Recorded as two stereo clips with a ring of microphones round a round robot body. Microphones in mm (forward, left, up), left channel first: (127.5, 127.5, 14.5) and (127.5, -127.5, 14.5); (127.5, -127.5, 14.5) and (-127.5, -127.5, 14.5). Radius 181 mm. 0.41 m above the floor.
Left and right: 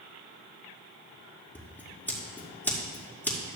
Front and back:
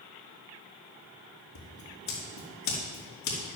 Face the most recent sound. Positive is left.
turn(degrees=5)